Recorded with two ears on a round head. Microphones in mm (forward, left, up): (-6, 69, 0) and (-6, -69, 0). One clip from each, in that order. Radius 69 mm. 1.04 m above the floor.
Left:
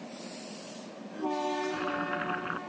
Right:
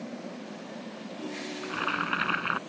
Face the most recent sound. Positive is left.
turn(degrees=-85)